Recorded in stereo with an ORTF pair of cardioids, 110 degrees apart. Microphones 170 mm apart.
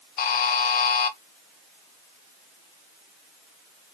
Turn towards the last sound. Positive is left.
turn(degrees=65)